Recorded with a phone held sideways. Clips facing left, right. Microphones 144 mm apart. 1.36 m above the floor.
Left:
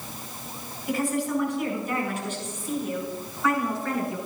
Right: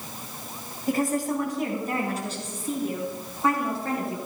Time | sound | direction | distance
0.9 | a woman speaking | 45° right (ahead or behind) | 5.5 m